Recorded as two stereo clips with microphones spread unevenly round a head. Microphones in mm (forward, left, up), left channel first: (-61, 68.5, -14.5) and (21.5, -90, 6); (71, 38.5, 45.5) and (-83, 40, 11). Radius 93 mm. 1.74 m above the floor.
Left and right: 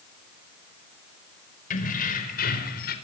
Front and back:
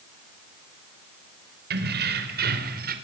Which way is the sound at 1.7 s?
160° left.